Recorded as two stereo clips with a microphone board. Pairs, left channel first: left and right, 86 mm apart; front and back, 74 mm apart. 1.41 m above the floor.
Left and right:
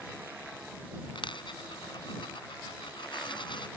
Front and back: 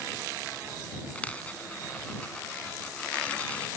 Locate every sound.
1.1 s a dropped coin: 70° left